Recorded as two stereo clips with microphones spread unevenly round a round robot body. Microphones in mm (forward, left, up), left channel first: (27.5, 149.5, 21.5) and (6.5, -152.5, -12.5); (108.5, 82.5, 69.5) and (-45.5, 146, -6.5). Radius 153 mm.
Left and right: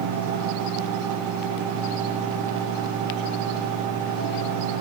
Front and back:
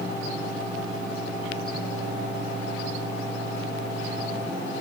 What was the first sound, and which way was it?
Only background noise.